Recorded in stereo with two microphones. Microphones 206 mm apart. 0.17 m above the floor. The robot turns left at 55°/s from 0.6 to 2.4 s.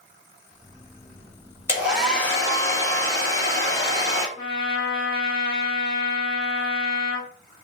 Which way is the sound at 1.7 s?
165° right.